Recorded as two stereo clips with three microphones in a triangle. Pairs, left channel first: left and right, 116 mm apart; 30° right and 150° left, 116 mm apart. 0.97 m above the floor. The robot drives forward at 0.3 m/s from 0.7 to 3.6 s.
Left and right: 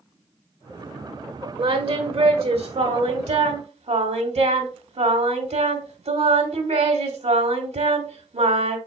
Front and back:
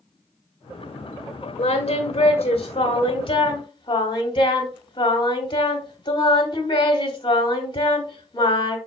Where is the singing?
55° right, 1.6 m; by 8.8 s 75° right, 1.3 m.